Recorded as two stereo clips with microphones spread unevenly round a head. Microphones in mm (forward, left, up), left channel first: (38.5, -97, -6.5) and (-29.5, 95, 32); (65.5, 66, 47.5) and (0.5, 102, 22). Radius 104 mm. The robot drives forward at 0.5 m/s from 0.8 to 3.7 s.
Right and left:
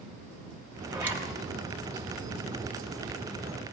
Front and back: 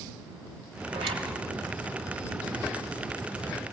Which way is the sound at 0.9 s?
175° right.